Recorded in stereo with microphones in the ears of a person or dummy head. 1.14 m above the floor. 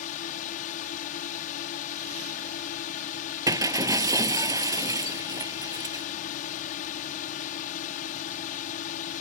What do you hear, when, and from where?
0.0 s a drone: 45° left (ahead or behind)
3.5 s breaking glass: 20° right (ahead or behind)